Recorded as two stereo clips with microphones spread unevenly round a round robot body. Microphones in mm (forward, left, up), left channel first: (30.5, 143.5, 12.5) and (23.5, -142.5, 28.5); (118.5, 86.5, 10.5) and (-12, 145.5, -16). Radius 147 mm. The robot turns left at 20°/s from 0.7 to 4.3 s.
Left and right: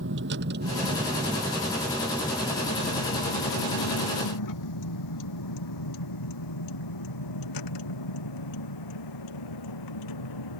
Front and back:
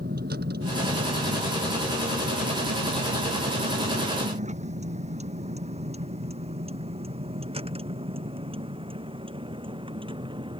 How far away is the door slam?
No door slam in this recording.